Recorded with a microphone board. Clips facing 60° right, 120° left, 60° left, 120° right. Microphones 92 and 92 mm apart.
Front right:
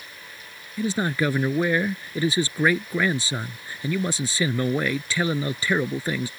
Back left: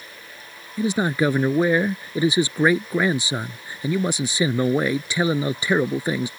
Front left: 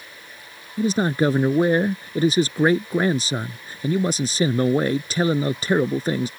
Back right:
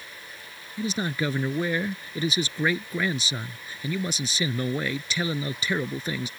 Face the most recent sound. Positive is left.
turn(degrees=60)